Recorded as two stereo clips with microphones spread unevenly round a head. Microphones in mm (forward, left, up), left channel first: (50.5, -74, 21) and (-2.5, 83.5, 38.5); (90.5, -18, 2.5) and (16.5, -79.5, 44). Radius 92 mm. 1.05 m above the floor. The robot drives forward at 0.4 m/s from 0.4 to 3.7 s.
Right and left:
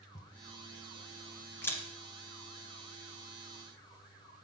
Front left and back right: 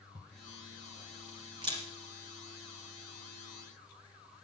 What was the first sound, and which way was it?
A camera shutter, 145° right.